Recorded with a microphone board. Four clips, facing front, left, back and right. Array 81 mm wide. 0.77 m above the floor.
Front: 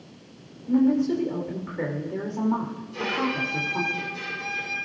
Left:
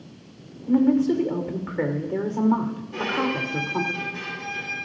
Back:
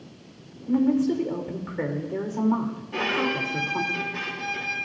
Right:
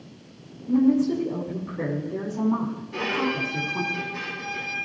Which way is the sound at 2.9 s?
Straight behind.